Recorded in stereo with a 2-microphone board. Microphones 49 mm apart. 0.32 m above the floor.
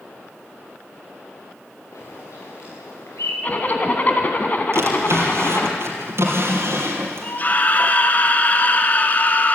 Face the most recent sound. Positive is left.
turn(degrees=35)  # may be behind; listen again after turning